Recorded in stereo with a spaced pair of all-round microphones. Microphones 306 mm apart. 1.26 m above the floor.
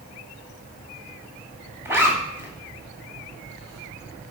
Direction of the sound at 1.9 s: 10° right (ahead or behind).